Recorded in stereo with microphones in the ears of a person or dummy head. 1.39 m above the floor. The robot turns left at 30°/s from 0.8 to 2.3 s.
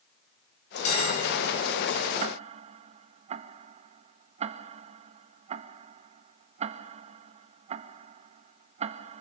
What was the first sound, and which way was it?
A bell, 40° left (ahead or behind).